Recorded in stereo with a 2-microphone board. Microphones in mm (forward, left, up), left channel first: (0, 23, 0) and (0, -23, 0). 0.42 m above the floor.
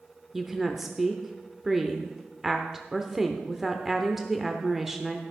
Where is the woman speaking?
5° right (ahead or behind), 0.8 m.